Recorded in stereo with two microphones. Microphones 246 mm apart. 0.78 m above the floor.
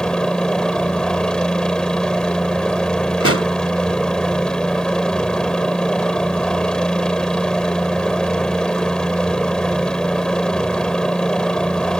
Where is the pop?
60° left (ahead or behind).